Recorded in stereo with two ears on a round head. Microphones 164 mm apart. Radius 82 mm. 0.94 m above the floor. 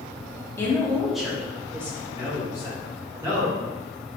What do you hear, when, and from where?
0.6 s a woman speaking: 15° left (ahead or behind), 1.8 m; by 2.0 s 15° right (ahead or behind), 3 m
2.1 s a man speaking: 15° right (ahead or behind), 1.9 m